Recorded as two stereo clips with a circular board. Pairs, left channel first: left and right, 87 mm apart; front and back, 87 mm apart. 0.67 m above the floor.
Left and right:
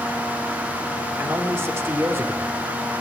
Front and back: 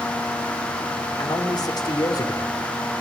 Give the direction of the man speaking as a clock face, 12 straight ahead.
1 o'clock.